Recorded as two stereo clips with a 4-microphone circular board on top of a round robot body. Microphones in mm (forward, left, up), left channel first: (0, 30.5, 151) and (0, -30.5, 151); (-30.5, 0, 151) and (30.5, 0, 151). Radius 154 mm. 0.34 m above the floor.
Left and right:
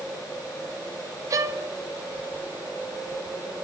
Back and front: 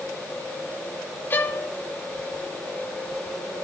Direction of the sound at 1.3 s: 125° right.